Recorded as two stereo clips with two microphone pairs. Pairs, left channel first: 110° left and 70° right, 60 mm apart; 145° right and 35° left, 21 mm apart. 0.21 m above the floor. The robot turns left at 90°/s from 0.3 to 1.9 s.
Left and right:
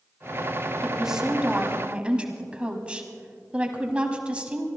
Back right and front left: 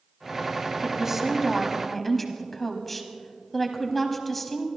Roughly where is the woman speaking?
Ahead.